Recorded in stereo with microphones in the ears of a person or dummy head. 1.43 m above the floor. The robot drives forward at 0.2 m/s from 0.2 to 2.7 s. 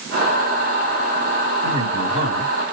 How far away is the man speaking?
About 1.8 m.